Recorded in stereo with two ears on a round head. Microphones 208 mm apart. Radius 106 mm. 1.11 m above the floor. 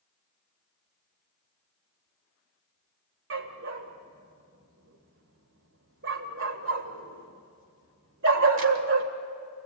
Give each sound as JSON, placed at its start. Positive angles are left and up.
{"t": 3.3, "sound": "a dog barking", "side_deg": -60, "distance_m": 1.8}